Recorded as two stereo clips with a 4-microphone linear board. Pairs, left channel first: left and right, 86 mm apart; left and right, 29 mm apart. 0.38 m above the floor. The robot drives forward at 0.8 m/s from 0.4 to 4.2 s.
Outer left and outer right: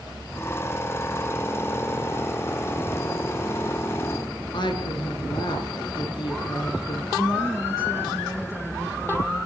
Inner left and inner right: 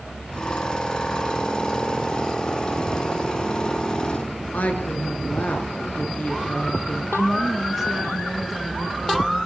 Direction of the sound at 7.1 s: 5° right (ahead or behind).